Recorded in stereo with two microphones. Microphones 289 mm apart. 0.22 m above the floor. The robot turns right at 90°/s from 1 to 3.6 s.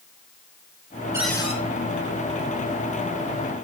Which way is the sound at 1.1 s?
10° right.